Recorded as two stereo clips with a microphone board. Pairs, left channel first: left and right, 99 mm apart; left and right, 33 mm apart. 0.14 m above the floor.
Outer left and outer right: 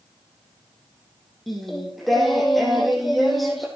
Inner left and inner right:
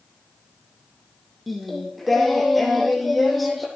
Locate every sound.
1.5 s singing: centre (ahead or behind), 4.5 m